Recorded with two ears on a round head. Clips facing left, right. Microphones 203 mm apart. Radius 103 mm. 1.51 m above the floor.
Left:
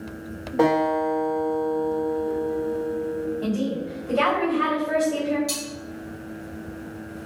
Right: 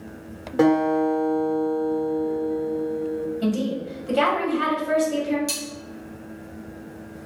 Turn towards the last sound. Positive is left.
turn(degrees=-15)  # may be behind; listen again after turning